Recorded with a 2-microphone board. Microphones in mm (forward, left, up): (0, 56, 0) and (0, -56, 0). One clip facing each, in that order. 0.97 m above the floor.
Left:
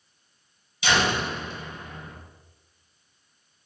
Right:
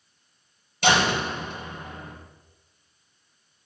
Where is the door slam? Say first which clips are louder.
Right 2 dB; 55° right (ahead or behind), 4.5 m.